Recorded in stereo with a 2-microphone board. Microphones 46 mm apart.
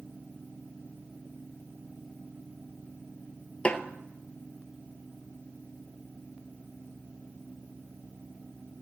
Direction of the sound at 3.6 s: 25° left (ahead or behind).